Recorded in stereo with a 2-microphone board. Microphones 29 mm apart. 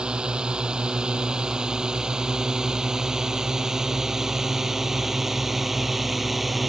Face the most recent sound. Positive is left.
turn(degrees=-5)  # may be behind; listen again after turning